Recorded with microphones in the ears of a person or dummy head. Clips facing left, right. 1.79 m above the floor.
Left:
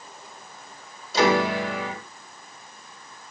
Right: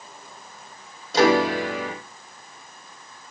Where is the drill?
No drill in this recording.